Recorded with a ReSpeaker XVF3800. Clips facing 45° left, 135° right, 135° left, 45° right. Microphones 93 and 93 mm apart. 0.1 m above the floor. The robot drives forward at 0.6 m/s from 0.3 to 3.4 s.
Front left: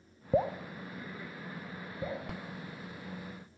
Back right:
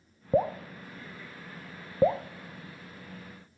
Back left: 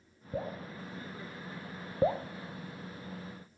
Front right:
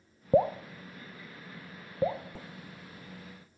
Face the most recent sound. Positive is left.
turn(degrees=-160)